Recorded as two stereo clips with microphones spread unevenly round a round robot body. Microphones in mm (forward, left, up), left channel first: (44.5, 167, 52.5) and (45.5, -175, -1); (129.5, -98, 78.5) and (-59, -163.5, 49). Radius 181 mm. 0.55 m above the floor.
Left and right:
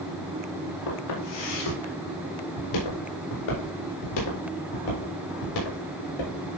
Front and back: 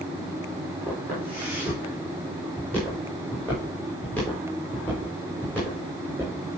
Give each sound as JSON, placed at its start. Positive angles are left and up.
{"t": 0.9, "sound": "footsteps", "azimuth_deg": 105, "distance_m": 7.5}